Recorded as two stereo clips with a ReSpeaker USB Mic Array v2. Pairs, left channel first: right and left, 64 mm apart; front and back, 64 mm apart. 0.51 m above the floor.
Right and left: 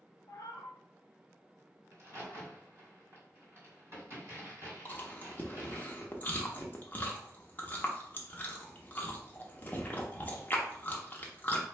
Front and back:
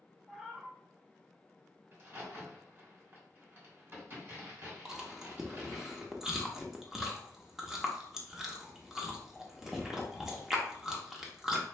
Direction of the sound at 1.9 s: 130° left.